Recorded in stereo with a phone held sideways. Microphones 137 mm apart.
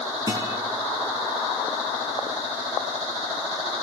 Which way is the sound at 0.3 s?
25° right (ahead or behind).